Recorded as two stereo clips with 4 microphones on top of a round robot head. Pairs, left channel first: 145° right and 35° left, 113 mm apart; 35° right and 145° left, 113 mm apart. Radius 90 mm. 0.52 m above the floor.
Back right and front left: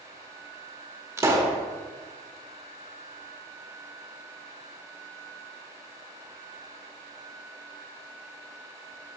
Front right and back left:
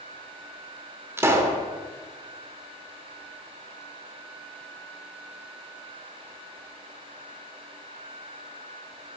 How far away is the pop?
About 1.2 m.